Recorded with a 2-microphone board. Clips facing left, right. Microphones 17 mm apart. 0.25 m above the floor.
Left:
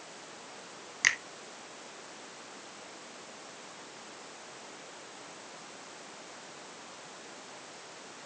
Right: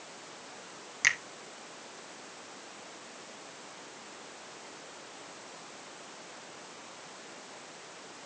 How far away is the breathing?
No breathing in this recording.